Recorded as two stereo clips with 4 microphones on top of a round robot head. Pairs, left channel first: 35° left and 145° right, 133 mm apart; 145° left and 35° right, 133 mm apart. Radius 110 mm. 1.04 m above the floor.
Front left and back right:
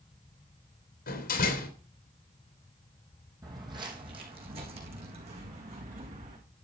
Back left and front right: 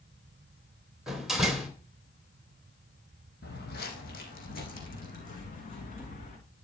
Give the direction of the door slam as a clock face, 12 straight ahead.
10 o'clock.